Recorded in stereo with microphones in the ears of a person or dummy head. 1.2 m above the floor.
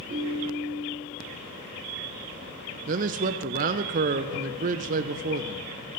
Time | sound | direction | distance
0.1 | a ringtone | 45° right (ahead or behind) | 1.9 m
2.9 | a man speaking | 45° right (ahead or behind) | 0.6 m